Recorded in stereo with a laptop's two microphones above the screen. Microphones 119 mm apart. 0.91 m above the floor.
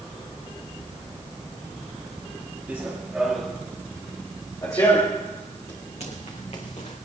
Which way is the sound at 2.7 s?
10° right (ahead or behind).